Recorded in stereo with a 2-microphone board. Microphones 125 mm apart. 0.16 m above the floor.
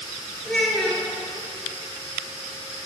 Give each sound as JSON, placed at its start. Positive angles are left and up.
{"t": 0.5, "sound": "a child speaking", "side_deg": 5, "distance_m": 1.8}